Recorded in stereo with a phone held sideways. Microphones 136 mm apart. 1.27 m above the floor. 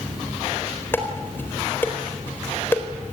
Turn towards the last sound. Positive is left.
turn(degrees=15)  # may be behind; listen again after turning